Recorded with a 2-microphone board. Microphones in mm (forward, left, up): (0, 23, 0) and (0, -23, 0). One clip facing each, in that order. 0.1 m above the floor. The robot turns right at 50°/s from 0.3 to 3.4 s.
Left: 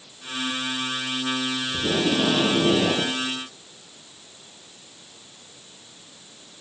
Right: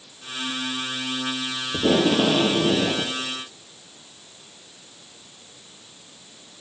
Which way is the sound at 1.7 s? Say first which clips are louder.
Right 5 dB; 50° right.